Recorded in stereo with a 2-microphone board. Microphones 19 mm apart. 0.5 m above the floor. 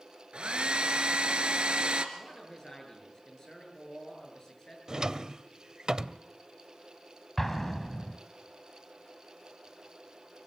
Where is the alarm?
No alarm in this recording.